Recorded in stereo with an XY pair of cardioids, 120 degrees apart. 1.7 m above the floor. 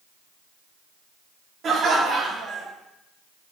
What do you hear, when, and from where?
1.6 s laughter: 50° right, 4.5 m; by 2.7 s 60° right, 4 m